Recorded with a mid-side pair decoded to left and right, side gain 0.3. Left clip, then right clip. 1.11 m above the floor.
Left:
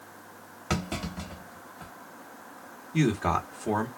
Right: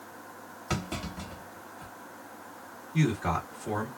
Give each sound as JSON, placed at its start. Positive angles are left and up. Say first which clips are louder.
{"t": 0.7, "sound": "a clunk", "louder": "left 2 dB", "azimuth_deg": 40, "distance_m": 1.3}
{"t": 2.9, "sound": "a man speaking", "louder": "left 3 dB", "azimuth_deg": 65, "distance_m": 1.4}